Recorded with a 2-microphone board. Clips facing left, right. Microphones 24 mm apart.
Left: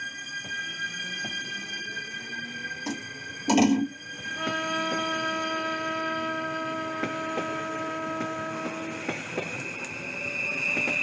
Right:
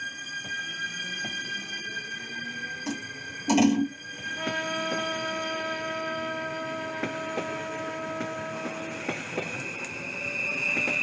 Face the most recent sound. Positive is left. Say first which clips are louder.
# left 2 dB
turn(degrees=40)  # may be behind; listen again after turning